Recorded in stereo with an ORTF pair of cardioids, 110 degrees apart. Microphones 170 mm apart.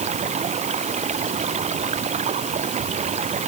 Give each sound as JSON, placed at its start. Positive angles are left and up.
{"t": 0.0, "sound": "running water", "azimuth_deg": -40}